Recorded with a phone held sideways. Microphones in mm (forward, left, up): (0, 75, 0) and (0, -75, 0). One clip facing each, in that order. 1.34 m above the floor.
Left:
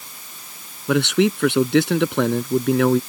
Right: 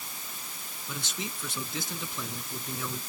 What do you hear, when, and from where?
0.9 s a man speaking: 75° left (ahead or behind)